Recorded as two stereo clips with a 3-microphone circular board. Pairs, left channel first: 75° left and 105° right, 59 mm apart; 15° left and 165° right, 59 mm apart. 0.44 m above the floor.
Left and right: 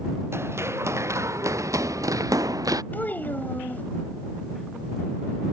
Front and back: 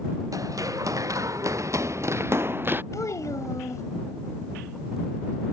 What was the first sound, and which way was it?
Running footsteps, 150° right.